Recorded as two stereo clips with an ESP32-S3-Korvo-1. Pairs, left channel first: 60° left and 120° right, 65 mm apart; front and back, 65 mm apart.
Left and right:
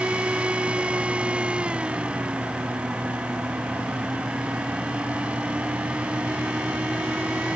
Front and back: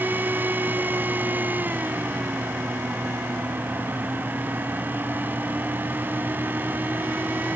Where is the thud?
I don't hear a thud.